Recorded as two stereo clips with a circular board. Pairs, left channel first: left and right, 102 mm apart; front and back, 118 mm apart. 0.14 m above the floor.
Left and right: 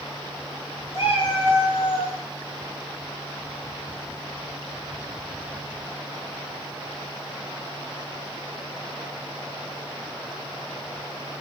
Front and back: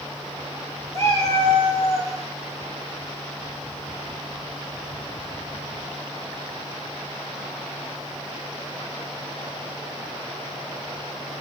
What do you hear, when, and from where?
0.9 s a cat meowing: 60° left, 5 m; by 2.1 s 70° left, 4 m